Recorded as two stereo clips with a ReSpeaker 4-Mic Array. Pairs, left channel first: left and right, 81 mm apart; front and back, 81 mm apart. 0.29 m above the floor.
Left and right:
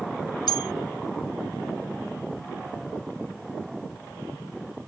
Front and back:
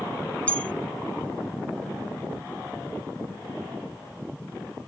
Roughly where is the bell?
Left.